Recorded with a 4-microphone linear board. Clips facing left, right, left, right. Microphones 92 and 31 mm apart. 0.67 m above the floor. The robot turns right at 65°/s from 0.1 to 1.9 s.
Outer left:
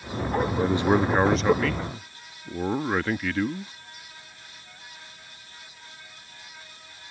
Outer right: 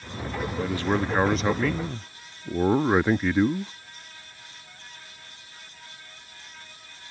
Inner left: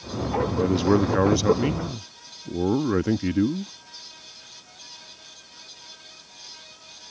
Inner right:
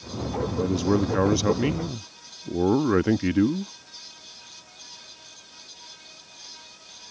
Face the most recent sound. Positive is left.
turn(degrees=-145)